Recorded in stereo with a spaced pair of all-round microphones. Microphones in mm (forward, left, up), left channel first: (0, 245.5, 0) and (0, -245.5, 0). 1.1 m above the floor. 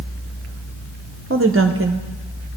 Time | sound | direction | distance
1.3 | a woman speaking | 25° right (ahead or behind) | 0.7 m